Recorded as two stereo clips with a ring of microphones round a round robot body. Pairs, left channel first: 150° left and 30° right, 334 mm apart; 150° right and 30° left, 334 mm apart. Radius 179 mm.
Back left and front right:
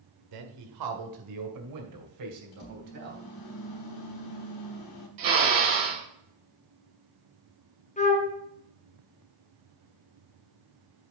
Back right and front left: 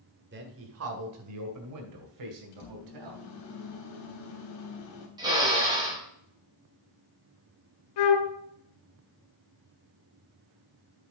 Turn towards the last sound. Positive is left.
turn(degrees=-140)